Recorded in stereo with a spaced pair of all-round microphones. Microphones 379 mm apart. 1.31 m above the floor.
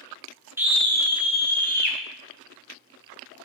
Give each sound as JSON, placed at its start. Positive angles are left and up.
{"t": 0.6, "sound": "a scream", "side_deg": -5, "distance_m": 1.1}